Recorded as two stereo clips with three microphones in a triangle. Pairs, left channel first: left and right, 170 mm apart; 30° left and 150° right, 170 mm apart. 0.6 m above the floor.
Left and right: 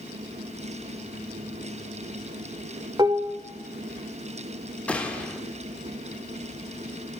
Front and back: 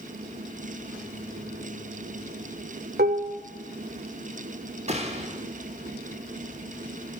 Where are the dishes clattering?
155° right, 1.2 m.